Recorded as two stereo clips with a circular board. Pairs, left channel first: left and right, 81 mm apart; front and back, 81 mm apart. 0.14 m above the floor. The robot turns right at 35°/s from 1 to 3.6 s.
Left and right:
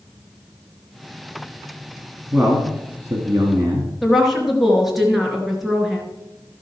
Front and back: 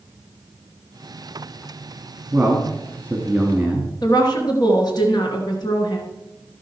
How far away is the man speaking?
About 1.9 m.